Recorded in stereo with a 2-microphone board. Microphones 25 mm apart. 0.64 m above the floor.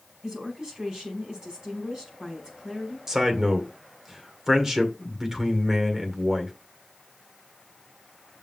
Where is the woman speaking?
35° right (ahead or behind), 4.5 m.